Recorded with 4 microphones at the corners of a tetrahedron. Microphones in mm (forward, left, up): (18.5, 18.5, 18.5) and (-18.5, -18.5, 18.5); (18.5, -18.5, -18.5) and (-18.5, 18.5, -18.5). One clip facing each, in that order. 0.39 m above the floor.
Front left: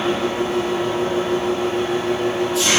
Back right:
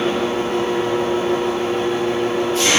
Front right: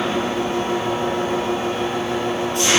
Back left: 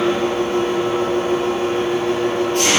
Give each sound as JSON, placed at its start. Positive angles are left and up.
{"t": 0.0, "sound": "an engine running", "azimuth_deg": 180, "distance_m": 4.5}